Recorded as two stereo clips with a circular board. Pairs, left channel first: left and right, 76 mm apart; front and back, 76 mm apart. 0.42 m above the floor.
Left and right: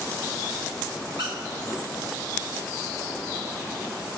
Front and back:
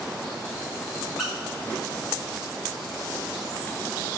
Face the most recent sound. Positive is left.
turn(degrees=-95)